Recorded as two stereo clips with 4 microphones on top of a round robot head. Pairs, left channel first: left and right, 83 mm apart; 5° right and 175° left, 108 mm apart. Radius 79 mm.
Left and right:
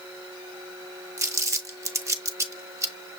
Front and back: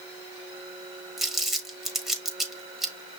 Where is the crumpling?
95° right, 1.2 m.